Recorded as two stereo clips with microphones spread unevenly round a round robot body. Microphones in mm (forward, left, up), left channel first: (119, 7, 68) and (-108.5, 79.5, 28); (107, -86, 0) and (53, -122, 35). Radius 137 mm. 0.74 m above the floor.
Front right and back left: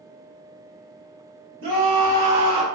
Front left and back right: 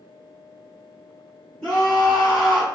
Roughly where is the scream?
Behind.